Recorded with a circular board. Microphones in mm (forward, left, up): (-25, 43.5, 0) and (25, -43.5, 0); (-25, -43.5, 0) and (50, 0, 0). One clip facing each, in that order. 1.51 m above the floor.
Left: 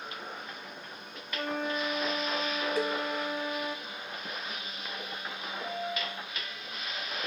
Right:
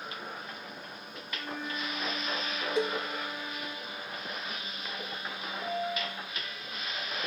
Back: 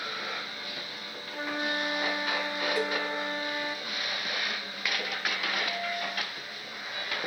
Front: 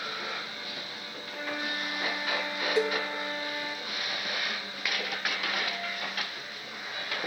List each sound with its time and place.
1.3 s a flute: 145° left, 0.6 m
2.8 s a cowbell: 15° right, 0.8 m
5.6 s a piano: 145° left, 3.5 m